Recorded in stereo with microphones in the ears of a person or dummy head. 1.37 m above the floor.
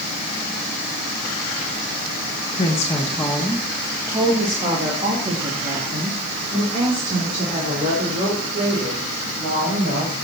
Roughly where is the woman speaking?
Left.